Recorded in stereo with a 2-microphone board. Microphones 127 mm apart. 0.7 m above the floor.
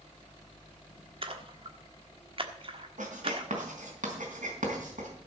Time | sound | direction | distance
1.2 | a splash | 45° right (ahead or behind) | 1.3 m
3.0 | writing | 85° right | 4 m